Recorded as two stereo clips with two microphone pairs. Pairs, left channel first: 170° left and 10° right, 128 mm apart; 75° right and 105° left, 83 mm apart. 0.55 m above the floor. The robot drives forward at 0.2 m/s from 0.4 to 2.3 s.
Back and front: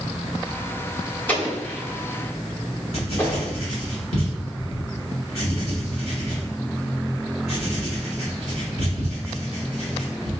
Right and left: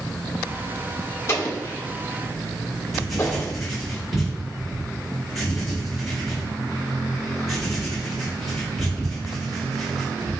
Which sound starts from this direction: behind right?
An explosion, at 1.3 s.